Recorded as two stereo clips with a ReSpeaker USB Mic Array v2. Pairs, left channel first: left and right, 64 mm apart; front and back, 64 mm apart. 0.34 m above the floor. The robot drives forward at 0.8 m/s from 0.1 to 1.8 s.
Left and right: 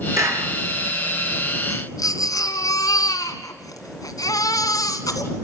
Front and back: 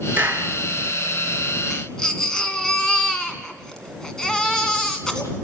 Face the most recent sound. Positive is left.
turn(degrees=80)